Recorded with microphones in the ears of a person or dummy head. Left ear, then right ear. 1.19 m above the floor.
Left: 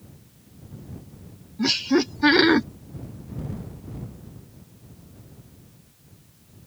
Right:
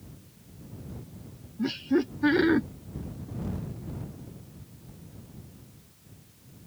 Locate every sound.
1.6 s laughter: 40° left (ahead or behind)